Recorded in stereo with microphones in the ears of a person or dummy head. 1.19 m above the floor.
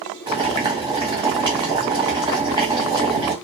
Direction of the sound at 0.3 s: 25° right (ahead or behind).